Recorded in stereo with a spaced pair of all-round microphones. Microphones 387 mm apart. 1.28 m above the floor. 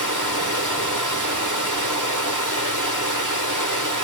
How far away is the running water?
About 1.3 m.